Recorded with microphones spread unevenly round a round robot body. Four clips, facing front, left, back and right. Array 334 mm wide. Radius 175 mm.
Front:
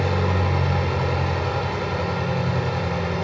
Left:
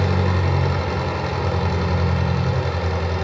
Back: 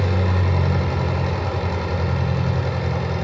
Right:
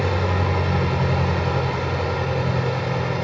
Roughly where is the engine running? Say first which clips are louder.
Even, front 1 dB; behind left.